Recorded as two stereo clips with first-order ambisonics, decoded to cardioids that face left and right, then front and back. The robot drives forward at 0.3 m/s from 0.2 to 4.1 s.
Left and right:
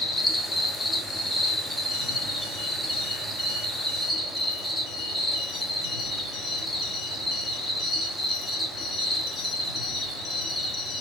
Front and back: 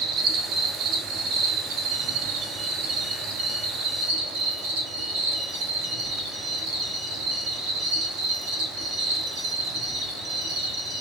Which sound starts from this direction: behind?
An insect, at 0.0 s.